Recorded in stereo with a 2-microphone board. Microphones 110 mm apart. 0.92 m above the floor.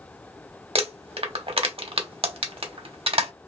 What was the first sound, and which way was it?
Crumpling, 55° right (ahead or behind).